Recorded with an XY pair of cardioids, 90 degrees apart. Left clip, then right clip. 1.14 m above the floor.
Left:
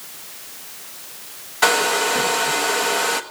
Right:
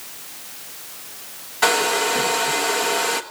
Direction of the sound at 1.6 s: 20° left.